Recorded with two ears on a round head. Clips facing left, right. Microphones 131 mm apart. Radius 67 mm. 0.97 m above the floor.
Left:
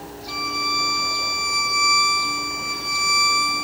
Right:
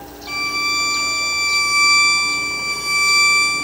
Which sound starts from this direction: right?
A violin, at 0.3 s.